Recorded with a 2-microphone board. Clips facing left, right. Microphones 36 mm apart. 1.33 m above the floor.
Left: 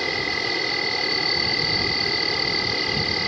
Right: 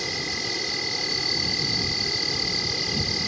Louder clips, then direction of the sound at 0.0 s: Left 5 dB; 30° left (ahead or behind).